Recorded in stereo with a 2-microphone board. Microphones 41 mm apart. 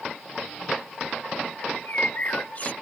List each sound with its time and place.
1.6 s a bird: 40° left (ahead or behind)